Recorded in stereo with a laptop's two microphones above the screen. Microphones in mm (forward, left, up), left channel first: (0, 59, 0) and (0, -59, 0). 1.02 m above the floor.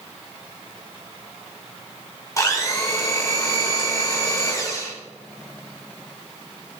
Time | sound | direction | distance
2.4 | a blender | 30° left (ahead or behind) | 4.5 m